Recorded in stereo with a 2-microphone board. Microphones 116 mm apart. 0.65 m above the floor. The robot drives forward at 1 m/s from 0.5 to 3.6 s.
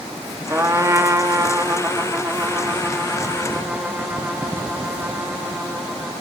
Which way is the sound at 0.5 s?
20° right (ahead or behind).